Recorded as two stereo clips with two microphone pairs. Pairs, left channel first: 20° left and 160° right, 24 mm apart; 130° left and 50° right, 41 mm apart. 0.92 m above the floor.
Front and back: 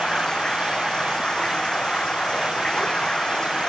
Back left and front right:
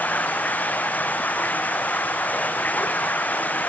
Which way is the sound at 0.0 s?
80° left.